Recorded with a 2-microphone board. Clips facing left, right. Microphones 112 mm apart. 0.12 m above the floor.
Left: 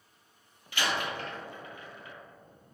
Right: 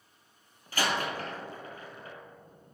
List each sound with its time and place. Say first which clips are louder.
0.7 s a door slam: right 2 dB; 40° right (ahead or behind), 1.8 m